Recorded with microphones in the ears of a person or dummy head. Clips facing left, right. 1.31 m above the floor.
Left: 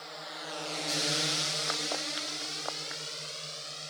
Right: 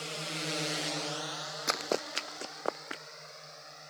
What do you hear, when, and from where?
0.0 s a drone: 45° right (ahead or behind); by 3.9 s 50° left (ahead or behind)
1.7 s running footsteps: 45° right (ahead or behind); by 3.0 s 50° right (ahead or behind)